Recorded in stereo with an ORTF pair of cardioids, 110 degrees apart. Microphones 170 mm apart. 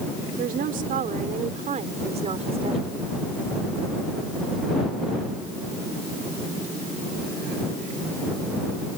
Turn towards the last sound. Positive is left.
turn(degrees=-35)